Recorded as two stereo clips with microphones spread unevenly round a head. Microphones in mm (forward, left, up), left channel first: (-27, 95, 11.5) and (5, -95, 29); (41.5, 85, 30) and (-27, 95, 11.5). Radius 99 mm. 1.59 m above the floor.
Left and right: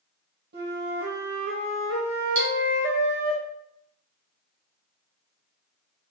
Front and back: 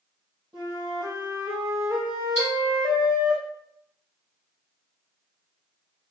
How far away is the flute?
About 1.2 m.